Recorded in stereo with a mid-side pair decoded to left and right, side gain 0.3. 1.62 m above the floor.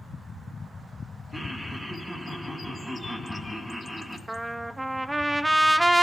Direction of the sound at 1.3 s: 15° right.